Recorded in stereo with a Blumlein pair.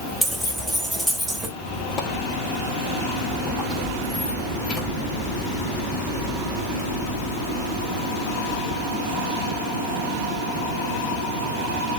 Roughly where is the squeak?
Ahead left.